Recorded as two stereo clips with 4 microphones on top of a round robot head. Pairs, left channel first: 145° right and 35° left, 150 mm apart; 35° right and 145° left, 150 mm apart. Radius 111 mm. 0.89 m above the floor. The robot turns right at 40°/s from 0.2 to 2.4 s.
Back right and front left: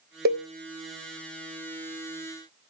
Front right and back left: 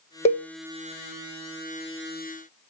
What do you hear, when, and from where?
0.2 s a cowbell: 15° left, 1.1 m; by 0.5 s 20° left, 1.1 m